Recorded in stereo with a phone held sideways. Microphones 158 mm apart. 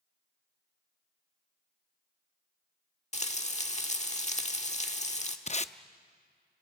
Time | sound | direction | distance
3.1 | frying | 45° left (ahead or behind) | 1.3 m
5.5 | tape being pulled | 45° left (ahead or behind) | 0.5 m